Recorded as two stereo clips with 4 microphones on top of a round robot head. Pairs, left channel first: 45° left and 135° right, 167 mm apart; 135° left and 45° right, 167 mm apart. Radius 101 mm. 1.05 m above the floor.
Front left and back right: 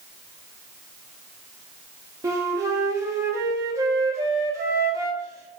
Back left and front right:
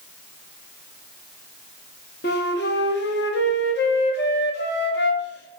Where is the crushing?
I don't hear crushing.